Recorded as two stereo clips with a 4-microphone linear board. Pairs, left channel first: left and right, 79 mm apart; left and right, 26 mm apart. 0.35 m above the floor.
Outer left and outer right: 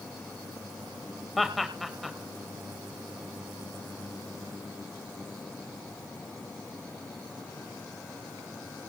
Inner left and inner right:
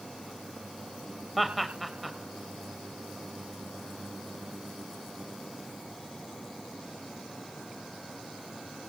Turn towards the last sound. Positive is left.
turn(degrees=0)  # may be behind; listen again after turning